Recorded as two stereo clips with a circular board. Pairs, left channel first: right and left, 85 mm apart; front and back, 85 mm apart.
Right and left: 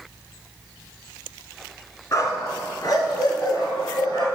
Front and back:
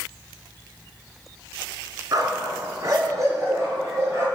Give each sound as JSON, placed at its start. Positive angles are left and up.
{"t": 2.1, "sound": "a dog barking", "azimuth_deg": -140, "distance_m": 1.7}